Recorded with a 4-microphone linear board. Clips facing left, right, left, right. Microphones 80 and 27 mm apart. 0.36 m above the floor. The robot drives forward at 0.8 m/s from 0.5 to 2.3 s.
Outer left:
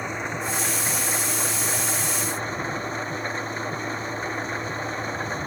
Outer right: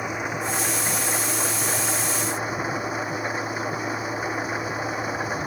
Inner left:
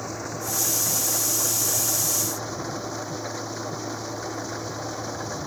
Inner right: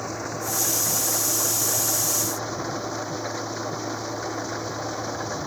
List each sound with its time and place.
0.0 s an engine running: 10° right (ahead or behind)